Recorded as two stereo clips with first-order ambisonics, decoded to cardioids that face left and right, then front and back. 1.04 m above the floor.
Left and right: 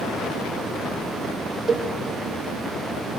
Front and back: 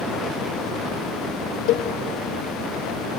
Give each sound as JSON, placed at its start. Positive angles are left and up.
{"t": 1.7, "sound": "a cowbell", "azimuth_deg": -25, "distance_m": 1.7}